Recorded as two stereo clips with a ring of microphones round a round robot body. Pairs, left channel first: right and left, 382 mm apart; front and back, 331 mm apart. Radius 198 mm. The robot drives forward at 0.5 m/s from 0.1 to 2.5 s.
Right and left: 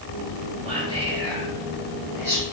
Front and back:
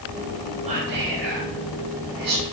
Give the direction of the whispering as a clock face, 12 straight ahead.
7 o'clock.